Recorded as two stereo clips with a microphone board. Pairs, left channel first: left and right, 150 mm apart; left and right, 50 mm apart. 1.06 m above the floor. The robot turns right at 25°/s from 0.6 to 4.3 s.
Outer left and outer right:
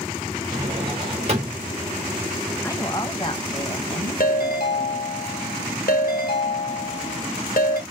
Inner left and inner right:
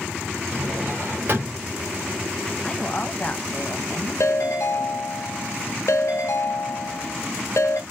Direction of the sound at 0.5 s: 30° right (ahead or behind).